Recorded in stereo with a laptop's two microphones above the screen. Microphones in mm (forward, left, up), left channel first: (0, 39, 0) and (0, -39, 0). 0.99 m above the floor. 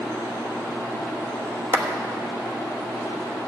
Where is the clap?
30° right (ahead or behind), 1.1 m.